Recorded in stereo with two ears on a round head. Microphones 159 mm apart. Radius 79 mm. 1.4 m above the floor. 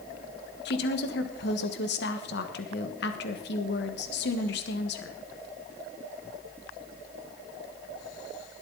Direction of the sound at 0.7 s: 65° left (ahead or behind).